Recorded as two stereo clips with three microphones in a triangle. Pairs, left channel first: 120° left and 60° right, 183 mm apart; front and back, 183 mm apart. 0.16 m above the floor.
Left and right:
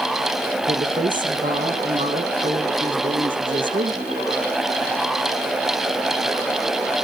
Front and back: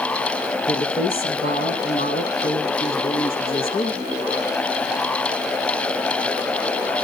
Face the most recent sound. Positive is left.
turn(degrees=-25)